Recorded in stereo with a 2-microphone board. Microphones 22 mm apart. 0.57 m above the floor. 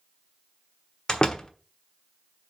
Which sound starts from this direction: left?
A door slam, at 1.1 s.